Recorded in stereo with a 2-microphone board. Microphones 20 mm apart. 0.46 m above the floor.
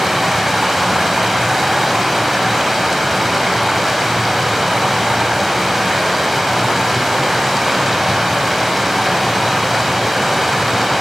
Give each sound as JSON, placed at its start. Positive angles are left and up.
{"t": 0.0, "sound": "running water", "side_deg": -10, "distance_m": 0.8}